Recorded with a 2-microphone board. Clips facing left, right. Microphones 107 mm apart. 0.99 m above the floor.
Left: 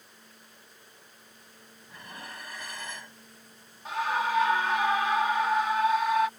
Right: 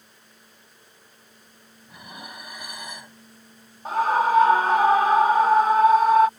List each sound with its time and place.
1.9 s dishes clattering: 15° right (ahead or behind)
3.9 s a scream: 40° right (ahead or behind)